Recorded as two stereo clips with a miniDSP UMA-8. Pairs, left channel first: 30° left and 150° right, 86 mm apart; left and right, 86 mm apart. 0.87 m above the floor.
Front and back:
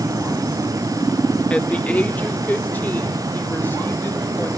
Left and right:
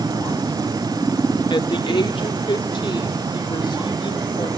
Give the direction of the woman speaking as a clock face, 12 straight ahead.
8 o'clock.